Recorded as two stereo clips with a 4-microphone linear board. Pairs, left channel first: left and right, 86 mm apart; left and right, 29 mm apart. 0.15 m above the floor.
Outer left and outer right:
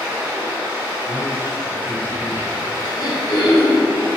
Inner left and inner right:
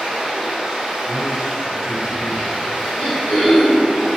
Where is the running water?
20° right (ahead or behind), 1.4 m.